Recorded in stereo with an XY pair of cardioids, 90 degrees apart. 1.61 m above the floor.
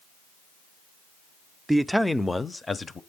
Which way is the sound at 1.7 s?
10° right.